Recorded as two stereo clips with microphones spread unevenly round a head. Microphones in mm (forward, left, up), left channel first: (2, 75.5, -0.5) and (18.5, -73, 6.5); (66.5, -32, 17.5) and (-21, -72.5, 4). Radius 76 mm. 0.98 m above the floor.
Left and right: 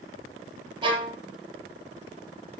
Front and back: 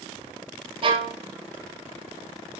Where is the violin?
145° right, 1.7 m.